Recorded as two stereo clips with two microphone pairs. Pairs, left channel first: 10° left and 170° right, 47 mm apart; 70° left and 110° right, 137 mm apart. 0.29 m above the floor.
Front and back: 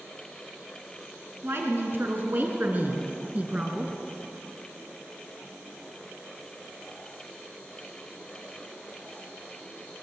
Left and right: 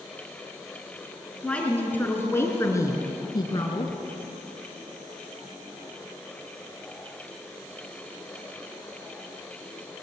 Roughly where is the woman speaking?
Behind left.